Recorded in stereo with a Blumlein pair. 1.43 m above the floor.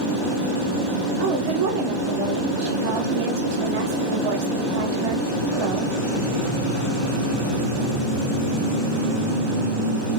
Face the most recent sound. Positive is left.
turn(degrees=-45)